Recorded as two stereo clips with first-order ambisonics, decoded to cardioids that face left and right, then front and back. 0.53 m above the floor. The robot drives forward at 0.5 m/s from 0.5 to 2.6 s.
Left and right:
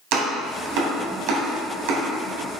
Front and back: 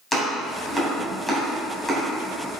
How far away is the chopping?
About 3.5 m.